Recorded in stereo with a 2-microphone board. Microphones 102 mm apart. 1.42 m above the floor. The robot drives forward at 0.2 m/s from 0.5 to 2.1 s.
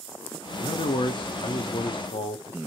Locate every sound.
0.6 s a man speaking: 60° left (ahead or behind), 0.6 m